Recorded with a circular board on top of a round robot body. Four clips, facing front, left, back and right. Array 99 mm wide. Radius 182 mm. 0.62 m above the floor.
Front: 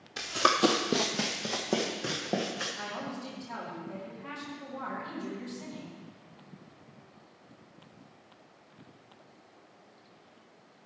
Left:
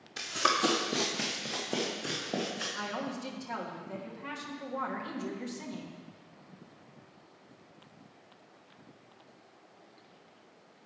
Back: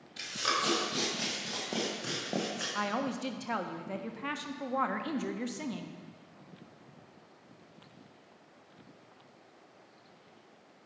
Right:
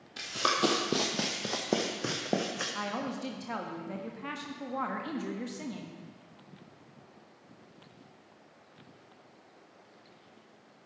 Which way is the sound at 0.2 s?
5° left.